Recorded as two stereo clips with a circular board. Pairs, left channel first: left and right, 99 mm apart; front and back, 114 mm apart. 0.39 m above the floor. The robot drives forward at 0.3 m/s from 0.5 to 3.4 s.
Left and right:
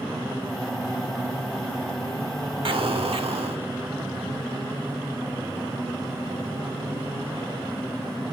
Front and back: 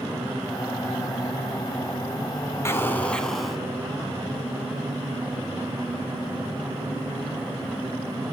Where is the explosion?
65° right, 0.6 m; by 3.6 s 90° right, 0.5 m.